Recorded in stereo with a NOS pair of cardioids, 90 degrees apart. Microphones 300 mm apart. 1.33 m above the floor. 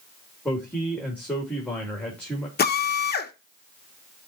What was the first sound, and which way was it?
A man speaking, 5° left.